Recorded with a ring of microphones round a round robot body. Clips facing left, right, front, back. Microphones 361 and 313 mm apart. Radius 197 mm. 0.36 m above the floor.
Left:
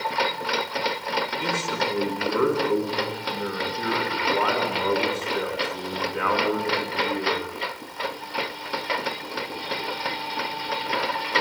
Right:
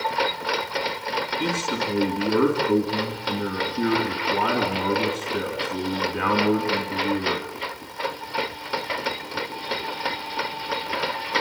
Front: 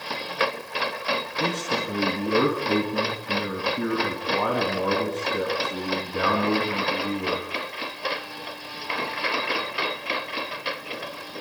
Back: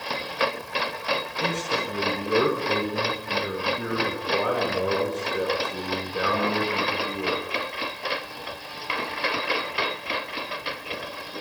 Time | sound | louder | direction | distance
1.4 | a man speaking | right 5 dB, front 3 dB | 40° right | 4 m